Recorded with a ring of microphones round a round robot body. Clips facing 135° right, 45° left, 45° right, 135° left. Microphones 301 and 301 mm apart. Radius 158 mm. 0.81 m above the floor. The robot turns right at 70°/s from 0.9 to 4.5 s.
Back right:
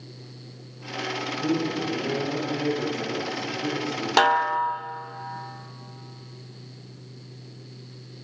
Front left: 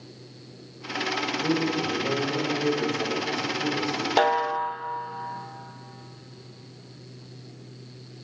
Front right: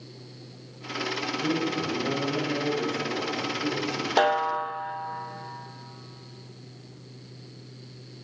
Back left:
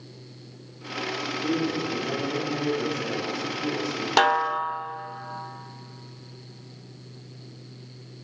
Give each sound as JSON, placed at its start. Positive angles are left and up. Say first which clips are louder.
{"t": 1.4, "sound": "a man speaking", "louder": "even, back left 2 dB", "azimuth_deg": -90, "distance_m": 4.5}
{"t": 4.2, "sound": "a snare drum", "louder": "front left 2 dB, front right 2 dB", "azimuth_deg": -175, "distance_m": 0.5}